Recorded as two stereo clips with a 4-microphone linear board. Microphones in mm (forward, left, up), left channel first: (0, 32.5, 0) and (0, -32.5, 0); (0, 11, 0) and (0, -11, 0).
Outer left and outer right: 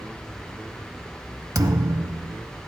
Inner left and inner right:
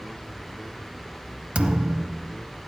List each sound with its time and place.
1.6 s a thud: 70° right (ahead or behind), 0.7 m